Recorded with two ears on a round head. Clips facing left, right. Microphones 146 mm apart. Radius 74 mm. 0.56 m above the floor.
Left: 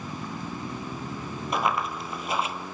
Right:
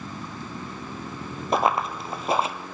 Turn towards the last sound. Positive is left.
turn(degrees=-30)  # may be behind; listen again after turning